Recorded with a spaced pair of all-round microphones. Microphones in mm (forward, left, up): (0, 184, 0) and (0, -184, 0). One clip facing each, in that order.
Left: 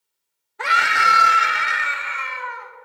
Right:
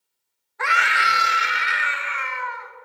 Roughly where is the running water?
No running water in this recording.